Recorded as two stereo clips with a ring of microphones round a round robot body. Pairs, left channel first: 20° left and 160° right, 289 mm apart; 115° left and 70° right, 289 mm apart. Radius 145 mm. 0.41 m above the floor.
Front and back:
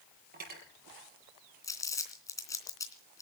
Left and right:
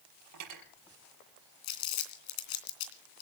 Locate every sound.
0.3 s cutlery clinking: 100° right, 6 m
1.6 s crumpling: 100° left, 3 m